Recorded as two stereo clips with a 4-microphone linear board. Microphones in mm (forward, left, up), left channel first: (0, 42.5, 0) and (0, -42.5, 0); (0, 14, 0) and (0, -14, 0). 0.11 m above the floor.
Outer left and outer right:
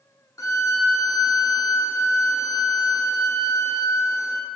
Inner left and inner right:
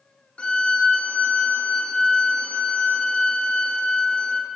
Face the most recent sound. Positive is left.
turn(degrees=45)  # may be behind; listen again after turning